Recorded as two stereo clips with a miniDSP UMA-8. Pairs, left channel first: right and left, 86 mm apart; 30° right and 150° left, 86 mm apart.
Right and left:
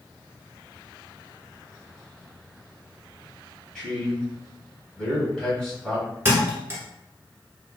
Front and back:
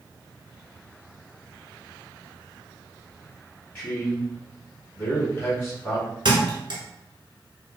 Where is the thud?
150° left, 1.0 m.